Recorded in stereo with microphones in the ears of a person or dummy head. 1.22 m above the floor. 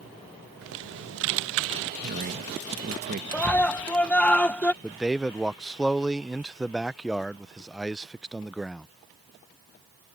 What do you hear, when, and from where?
0.6 s typing on a keyboard: 60° right (ahead or behind)
2.0 s a man speaking: 45° right (ahead or behind)
3.3 s a scream: 10° left (ahead or behind)
4.8 s a man speaking: centre (ahead or behind)